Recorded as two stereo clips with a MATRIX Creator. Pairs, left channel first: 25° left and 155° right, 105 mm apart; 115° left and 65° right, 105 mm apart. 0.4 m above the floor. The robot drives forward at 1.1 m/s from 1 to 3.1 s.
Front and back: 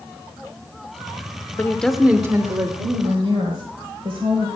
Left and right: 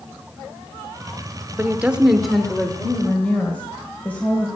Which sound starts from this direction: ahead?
A woman speaking, at 1.6 s.